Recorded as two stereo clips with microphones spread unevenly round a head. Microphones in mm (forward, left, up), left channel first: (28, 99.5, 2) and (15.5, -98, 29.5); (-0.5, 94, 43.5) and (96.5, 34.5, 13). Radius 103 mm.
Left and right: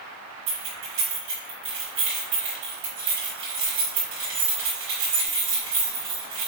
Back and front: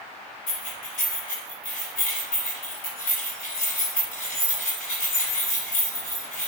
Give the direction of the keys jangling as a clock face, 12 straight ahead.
5 o'clock.